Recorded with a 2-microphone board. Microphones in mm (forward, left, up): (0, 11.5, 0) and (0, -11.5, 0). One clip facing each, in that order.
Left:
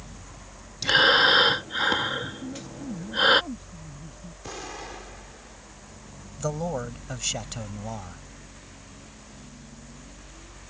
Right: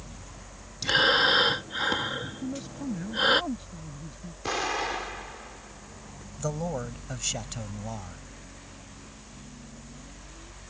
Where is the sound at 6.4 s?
10° left (ahead or behind).